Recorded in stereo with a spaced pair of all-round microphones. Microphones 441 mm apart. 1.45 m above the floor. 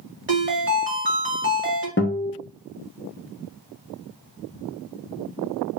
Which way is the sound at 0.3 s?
25° right (ahead or behind).